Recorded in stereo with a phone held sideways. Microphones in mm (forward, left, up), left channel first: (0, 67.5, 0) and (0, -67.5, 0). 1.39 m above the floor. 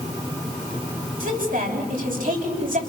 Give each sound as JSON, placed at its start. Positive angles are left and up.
{"t": 1.2, "sound": "a woman speaking", "side_deg": -75, "distance_m": 10.0}